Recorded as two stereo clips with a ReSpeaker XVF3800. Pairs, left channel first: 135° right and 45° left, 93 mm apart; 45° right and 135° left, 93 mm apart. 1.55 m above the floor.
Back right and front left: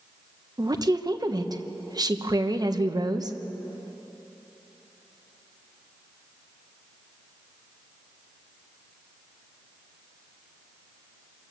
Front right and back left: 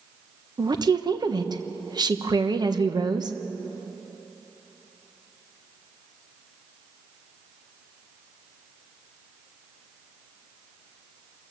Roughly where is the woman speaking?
Left.